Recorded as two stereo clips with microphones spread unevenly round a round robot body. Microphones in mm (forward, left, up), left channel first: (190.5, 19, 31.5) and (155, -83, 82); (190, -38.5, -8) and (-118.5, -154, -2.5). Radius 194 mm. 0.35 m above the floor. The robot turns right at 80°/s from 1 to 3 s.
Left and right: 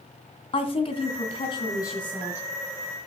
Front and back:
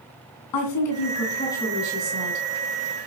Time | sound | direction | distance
0.5 | a woman speaking | 60° left | 2.5 m